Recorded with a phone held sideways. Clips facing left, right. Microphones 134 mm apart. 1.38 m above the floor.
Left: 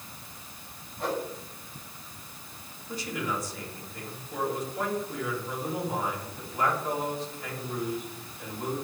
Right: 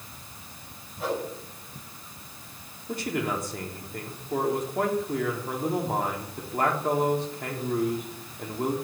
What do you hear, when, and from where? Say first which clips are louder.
1.0 s a whoosh: right 1 dB; centre (ahead or behind), 5.5 m
2.9 s a man speaking: right 4 dB; 60° right (ahead or behind), 2.5 m